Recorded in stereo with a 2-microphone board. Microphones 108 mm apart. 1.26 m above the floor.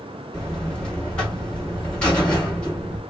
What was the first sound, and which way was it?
A buzzer, 10° left (ahead or behind).